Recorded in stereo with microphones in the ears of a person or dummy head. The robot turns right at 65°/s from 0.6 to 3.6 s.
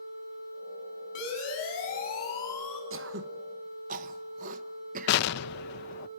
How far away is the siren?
About 8 m.